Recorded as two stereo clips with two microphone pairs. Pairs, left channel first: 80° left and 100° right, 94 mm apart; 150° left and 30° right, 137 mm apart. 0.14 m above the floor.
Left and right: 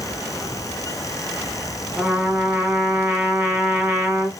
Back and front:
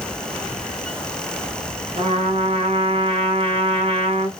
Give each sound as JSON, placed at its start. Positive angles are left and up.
{"t": 2.0, "sound": "a trumpet", "azimuth_deg": -30, "distance_m": 1.4}